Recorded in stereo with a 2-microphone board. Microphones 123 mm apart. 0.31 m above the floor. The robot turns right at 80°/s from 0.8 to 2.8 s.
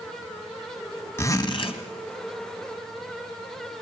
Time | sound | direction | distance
1.2 | a zipper | 25° left | 2 m